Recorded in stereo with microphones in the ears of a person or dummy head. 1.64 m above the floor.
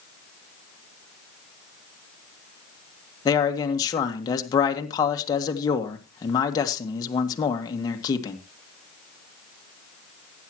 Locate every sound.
3.2 s a man speaking: 25° left (ahead or behind), 1.7 m